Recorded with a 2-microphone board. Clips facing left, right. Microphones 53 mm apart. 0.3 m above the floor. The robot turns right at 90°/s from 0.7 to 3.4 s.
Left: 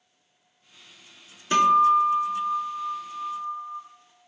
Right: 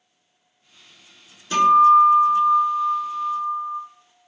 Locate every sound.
1.5 s a guitar: 145° left, 0.6 m; by 3.8 s 45° right, 0.6 m